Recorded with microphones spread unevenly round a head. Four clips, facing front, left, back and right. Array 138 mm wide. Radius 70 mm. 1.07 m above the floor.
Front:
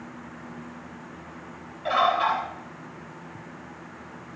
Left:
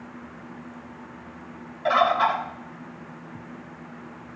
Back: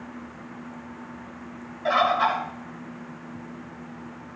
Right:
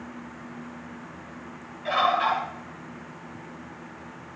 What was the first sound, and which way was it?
A bird, 110° left.